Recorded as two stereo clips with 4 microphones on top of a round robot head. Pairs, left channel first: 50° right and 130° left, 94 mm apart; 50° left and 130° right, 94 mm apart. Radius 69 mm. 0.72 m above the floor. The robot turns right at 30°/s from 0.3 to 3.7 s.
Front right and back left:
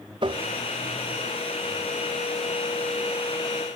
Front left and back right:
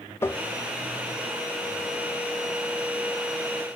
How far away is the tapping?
About 0.5 m.